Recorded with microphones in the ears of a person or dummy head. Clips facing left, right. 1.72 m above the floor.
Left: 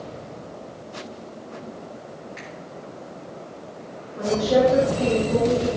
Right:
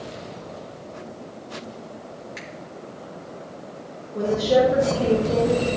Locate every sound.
2.4 s a finger snap: 60° right (ahead or behind), 3 m
4.1 s a woman speaking: 55° right (ahead or behind), 4.5 m